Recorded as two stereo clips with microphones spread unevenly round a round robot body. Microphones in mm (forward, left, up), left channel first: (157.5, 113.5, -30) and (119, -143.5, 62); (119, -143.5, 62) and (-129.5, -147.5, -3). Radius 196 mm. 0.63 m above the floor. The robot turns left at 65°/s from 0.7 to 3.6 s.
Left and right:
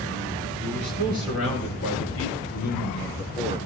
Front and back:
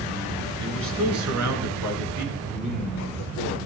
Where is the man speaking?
140° right, 7.5 m; by 3.6 s 35° left, 7.5 m.